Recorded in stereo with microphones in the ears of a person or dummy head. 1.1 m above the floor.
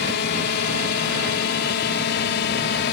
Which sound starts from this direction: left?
A drone, at 0.0 s.